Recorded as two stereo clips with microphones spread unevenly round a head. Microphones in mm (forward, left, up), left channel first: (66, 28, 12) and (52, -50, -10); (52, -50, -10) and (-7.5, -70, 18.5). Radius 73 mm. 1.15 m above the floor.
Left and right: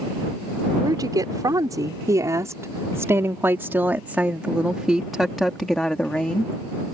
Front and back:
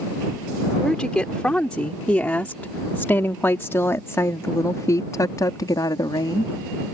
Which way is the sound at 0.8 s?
60° right.